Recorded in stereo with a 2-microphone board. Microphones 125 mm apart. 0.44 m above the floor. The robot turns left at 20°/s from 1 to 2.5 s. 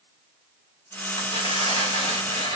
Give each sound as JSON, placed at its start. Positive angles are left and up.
{"t": 1.2, "sound": "tearing paper", "side_deg": 50, "distance_m": 2.0}